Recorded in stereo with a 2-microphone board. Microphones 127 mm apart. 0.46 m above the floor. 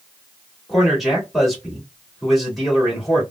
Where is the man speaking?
Centre (ahead or behind), 1.7 m.